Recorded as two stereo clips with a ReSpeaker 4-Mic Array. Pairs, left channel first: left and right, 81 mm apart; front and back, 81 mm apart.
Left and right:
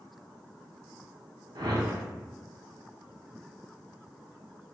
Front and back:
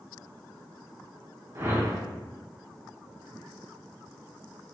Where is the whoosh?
125° right, 0.5 m.